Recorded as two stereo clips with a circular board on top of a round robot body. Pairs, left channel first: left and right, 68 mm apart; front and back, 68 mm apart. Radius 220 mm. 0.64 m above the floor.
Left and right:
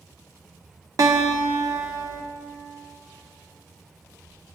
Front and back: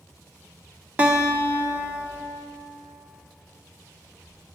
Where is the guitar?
115° right, 1.6 m.